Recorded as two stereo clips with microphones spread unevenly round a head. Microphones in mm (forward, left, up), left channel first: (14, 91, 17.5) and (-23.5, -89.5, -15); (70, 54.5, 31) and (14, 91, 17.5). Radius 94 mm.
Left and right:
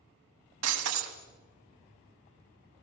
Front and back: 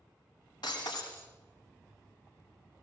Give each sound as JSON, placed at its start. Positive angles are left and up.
{"t": 0.6, "sound": "breaking glass", "azimuth_deg": -95, "distance_m": 2.5}